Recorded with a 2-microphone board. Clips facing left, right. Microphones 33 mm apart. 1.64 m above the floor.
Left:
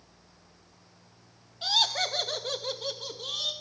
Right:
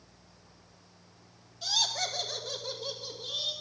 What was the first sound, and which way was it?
Laughter, 40° left (ahead or behind).